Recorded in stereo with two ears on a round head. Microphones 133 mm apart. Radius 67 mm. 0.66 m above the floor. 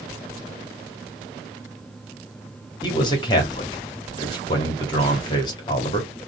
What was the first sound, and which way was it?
A man speaking, 30° left (ahead or behind).